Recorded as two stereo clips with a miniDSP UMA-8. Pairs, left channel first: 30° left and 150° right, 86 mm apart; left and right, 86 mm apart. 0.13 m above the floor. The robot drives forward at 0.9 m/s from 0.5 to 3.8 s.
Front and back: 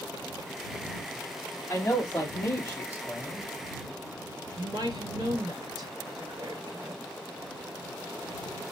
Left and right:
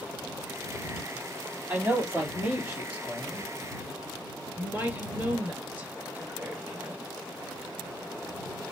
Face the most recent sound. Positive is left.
turn(degrees=-155)